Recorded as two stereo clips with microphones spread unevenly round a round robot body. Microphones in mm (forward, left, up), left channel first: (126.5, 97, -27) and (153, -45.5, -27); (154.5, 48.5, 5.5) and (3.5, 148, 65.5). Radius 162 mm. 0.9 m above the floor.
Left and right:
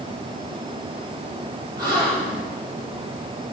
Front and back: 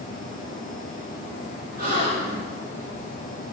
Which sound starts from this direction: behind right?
A gasp, at 1.8 s.